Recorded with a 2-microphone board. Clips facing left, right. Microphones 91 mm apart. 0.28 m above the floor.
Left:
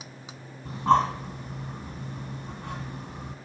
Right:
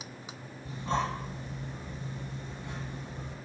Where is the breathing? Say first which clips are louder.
Left 10 dB; 65° left (ahead or behind), 1.8 m.